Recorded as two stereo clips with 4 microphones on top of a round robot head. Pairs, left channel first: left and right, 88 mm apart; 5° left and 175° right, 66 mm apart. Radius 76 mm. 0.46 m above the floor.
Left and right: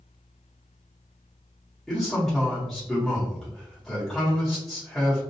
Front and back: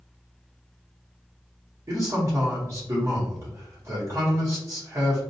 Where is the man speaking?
175° left, 1.0 m.